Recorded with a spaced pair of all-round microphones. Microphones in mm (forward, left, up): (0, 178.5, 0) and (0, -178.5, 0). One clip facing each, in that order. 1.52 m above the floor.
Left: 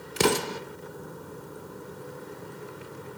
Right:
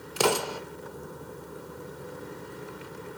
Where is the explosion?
30° left (ahead or behind), 0.7 m.